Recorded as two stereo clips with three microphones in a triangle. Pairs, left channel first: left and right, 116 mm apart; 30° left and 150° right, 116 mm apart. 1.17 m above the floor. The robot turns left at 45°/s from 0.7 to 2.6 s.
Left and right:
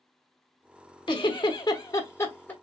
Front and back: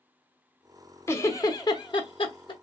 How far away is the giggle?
About 1.0 m.